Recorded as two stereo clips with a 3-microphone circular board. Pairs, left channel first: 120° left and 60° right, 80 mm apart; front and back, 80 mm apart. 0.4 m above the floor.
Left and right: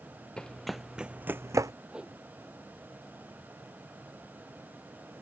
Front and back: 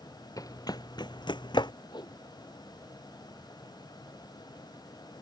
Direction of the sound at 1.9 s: 20° left.